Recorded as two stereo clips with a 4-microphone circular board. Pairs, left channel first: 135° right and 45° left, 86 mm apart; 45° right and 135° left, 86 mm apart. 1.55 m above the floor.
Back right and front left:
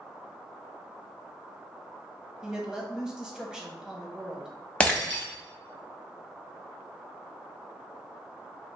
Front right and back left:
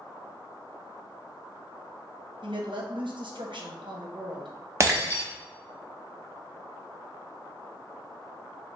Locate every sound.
2.4 s a woman speaking: 125° left, 0.9 m
4.8 s breaking glass: 155° left, 0.9 m